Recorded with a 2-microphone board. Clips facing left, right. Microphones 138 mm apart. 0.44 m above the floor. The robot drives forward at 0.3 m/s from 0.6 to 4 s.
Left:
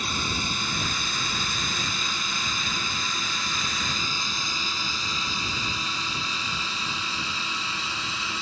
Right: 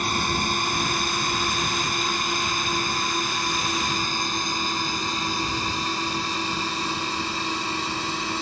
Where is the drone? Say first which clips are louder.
Right 6 dB; 55° right (ahead or behind); by 8.4 s 45° right (ahead or behind).